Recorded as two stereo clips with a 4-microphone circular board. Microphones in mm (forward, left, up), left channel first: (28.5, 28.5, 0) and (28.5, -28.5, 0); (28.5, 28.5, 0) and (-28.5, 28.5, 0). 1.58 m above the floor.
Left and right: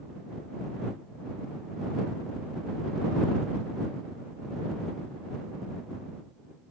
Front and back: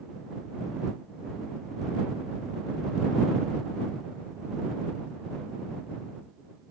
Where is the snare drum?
No snare drum in this recording.